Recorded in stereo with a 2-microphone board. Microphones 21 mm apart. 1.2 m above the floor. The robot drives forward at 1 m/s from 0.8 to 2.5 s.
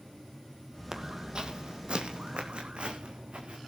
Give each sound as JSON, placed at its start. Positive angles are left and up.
{"t": 0.9, "sound": "footsteps", "side_deg": -25, "distance_m": 1.8}